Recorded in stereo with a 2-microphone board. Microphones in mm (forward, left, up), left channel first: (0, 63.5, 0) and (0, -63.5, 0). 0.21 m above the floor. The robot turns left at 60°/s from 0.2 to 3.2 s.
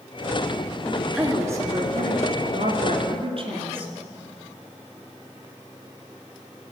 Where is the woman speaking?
15° left, 2.5 m; by 3.9 s 125° right, 2.5 m.